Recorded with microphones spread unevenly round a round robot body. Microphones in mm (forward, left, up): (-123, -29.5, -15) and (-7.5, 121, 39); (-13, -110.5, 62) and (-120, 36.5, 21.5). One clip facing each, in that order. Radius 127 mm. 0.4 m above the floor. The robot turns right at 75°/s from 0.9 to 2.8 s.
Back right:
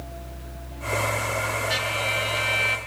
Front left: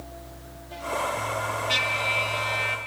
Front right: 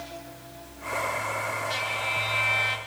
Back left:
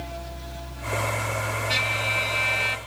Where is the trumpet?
115° left, 3.5 m; by 2.8 s 165° right, 3.5 m.